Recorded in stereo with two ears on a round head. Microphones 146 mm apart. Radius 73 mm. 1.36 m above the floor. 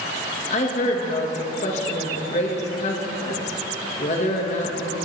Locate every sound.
0.5 s a woman speaking: 45° left (ahead or behind), 1.7 m